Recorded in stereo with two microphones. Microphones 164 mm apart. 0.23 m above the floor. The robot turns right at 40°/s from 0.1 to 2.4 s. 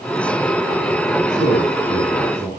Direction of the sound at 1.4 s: 50° right.